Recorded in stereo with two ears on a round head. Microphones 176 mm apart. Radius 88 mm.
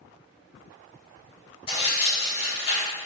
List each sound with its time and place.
1.7 s tearing paper: 35° left (ahead or behind), 2.0 m